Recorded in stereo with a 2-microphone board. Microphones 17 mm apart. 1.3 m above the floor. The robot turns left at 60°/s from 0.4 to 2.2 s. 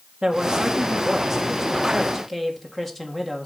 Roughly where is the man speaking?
Right.